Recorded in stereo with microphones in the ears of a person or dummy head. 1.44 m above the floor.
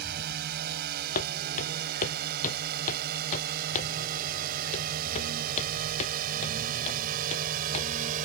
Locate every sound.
0.0 s a drone: 55° right (ahead or behind); by 8.2 s 45° right (ahead or behind)
1.1 s footsteps: 45° left (ahead or behind); by 7.9 s 35° left (ahead or behind)